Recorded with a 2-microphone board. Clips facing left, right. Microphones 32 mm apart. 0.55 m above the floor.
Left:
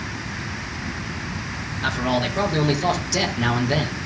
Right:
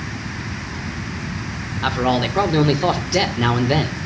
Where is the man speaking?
35° right (ahead or behind), 1.9 m.